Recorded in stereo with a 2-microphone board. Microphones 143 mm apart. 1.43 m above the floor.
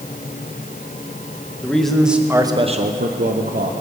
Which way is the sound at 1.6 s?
5° left (ahead or behind).